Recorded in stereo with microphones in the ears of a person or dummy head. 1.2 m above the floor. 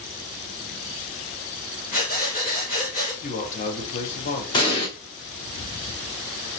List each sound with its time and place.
1.9 s breathing: 45° left (ahead or behind), 1.4 m
3.2 s a man speaking: 40° left (ahead or behind), 1.3 m
4.5 s an explosion: 25° left (ahead or behind), 0.9 m